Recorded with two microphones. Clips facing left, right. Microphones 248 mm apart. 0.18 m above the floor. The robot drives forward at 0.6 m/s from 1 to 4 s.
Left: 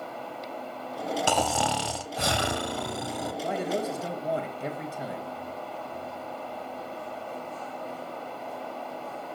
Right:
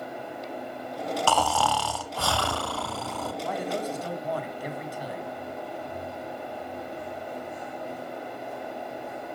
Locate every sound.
1.3 s snoring: 15° left (ahead or behind), 0.9 m
3.4 s a man speaking: 25° left (ahead or behind), 1.7 m